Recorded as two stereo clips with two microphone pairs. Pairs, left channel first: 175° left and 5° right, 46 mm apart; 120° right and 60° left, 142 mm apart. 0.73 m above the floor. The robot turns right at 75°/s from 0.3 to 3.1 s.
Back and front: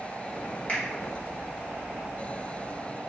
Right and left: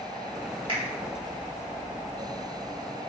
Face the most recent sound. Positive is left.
turn(degrees=-70)